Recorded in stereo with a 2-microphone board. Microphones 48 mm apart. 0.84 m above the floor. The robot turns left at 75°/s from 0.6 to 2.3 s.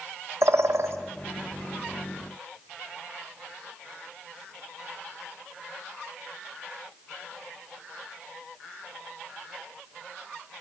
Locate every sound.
0.4 s a bird: 70° right (ahead or behind), 1.7 m; by 1.0 s 60° right (ahead or behind), 1.7 m